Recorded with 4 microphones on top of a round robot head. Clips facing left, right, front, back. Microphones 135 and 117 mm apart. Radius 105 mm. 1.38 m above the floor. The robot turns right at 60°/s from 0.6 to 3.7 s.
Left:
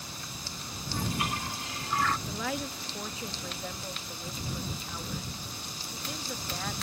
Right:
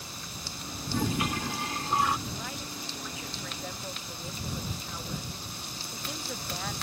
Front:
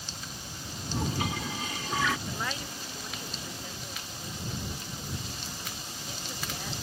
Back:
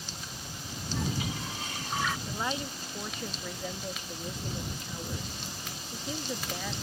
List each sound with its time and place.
0.9 s a toilet flushing: 80° right; by 2.2 s 5° right
2.3 s a woman speaking: 95° left; by 6.7 s straight behind